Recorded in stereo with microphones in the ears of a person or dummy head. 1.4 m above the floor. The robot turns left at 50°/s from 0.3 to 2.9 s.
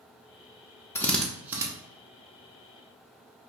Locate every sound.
0.9 s a drill: 15° left (ahead or behind), 0.5 m; by 1.7 s 15° right (ahead or behind), 0.5 m